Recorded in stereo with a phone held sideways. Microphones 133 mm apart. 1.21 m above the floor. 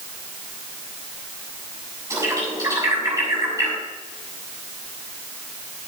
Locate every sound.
2.1 s a bird: 25° right (ahead or behind), 7.5 m